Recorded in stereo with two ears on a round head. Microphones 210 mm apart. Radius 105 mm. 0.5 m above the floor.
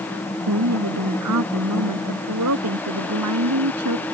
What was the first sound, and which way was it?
A woman speaking, 80° right.